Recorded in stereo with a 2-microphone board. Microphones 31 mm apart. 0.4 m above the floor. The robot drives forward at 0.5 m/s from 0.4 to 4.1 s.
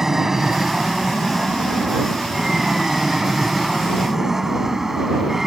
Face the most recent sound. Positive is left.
turn(degrees=-15)  # may be behind; listen again after turning